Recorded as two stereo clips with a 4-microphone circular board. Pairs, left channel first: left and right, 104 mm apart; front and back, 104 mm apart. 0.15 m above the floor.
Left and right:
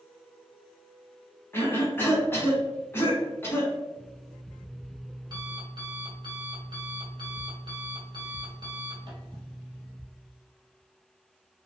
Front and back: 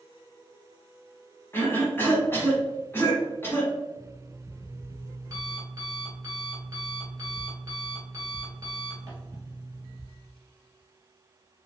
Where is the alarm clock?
125° right, 1.3 m.